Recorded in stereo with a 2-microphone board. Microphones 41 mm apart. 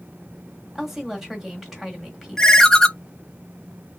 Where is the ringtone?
10° left (ahead or behind), 0.6 m.